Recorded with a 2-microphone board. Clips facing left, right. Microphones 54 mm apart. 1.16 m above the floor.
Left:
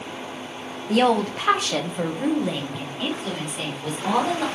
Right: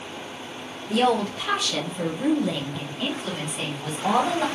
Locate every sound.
0.9 s a woman speaking: 60° left (ahead or behind), 0.9 m; by 4.5 s 5° right (ahead or behind), 2.0 m